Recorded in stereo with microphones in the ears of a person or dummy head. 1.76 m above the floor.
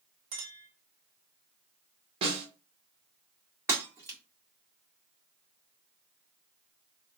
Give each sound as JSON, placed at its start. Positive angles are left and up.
{"t": 0.3, "sound": "a clink", "side_deg": -25, "distance_m": 1.5}
{"t": 2.2, "sound": "a snare drum", "side_deg": -25, "distance_m": 1.4}
{"t": 3.7, "sound": "breaking glass", "side_deg": -10, "distance_m": 1.9}